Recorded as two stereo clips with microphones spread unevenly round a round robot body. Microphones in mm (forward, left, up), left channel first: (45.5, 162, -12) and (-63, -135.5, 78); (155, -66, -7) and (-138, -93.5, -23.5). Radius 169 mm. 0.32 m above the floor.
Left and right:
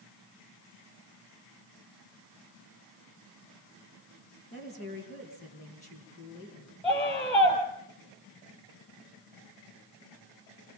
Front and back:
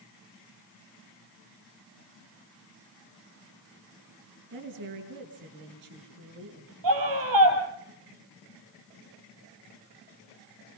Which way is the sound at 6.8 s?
150° left.